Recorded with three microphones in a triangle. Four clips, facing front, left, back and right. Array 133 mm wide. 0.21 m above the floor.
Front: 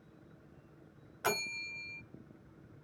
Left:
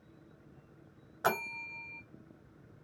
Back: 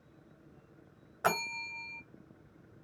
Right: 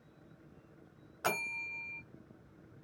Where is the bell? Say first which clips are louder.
Left 4 dB, back 4 dB; 155° left, 0.8 m.